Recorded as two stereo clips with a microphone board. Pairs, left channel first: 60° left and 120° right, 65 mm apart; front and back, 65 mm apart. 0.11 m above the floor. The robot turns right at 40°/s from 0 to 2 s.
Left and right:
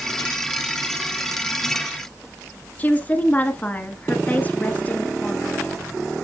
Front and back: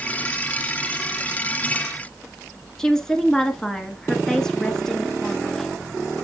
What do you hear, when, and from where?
2.8 s a woman speaking: 65° left, 1.3 m